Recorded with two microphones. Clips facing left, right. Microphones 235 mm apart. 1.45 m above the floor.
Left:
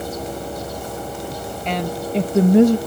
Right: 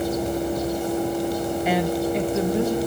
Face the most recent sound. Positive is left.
turn(degrees=75)  # may be behind; listen again after turning